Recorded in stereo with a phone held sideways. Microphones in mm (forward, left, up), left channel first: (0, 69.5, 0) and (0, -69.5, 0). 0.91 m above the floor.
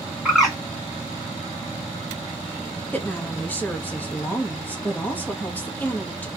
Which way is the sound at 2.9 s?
15° left (ahead or behind).